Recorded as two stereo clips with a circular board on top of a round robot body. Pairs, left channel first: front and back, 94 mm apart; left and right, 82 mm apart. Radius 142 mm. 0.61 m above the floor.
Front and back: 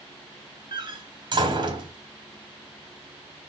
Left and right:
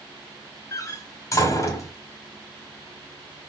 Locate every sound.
0.7 s a door slam: 140° left, 1.8 m